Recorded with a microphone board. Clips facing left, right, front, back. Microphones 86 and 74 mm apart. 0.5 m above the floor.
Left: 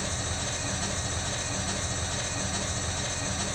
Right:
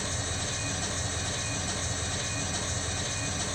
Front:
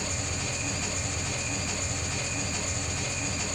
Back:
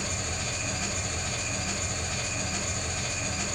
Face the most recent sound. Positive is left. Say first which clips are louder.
# left 1 dB, even
turn(degrees=100)